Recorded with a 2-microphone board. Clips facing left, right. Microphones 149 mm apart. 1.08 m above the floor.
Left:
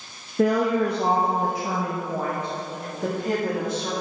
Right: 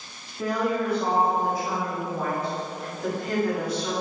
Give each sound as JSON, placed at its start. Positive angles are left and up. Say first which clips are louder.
{"t": 0.4, "sound": "a woman speaking", "louder": "left 5 dB", "side_deg": 65, "distance_m": 0.9}